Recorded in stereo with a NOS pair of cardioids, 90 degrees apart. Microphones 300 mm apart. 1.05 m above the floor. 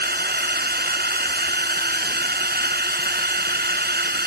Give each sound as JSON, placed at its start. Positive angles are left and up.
{"t": 0.0, "sound": "a drone", "azimuth_deg": -30}